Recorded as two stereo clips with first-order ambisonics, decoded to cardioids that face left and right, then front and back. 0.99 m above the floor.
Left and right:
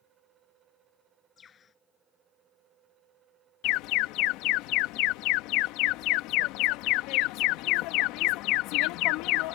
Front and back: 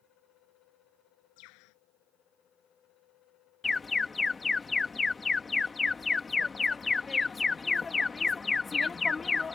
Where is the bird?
25° left.